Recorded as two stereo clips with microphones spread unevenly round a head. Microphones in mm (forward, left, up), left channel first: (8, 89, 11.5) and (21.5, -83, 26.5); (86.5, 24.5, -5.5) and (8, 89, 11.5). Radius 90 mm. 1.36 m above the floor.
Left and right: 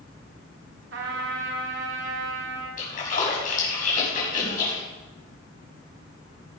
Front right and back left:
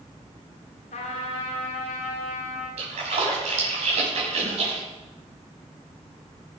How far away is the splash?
About 5.5 m.